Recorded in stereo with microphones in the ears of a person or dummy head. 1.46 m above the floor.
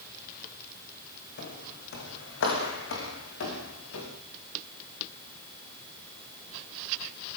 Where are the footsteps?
60° left (ahead or behind), 6 m; by 4.1 s 80° left, 8 m.